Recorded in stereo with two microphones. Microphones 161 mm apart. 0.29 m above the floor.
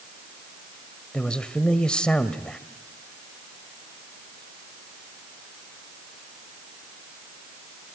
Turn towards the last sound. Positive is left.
turn(degrees=5)  # may be behind; listen again after turning